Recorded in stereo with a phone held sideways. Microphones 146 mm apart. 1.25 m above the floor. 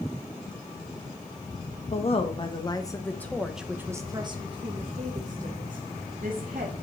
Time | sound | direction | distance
1.9 | a woman speaking | 45° left (ahead or behind) | 1.5 m